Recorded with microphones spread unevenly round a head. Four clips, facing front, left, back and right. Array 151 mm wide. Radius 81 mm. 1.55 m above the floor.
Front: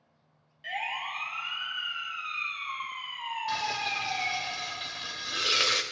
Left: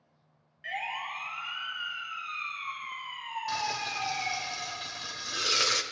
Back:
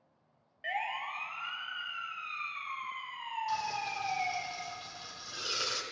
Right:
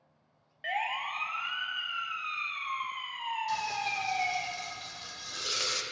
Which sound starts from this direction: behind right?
A siren, at 0.6 s.